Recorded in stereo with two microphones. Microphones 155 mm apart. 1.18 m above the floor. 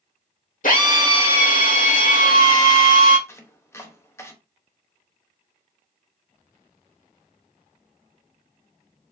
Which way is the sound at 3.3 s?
15° left (ahead or behind).